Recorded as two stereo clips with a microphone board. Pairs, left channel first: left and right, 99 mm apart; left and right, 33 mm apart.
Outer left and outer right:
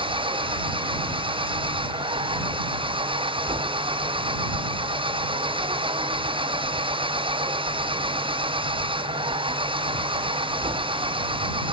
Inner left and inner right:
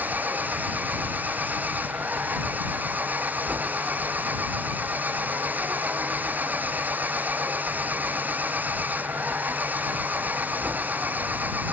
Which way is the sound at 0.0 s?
65° right (ahead or behind).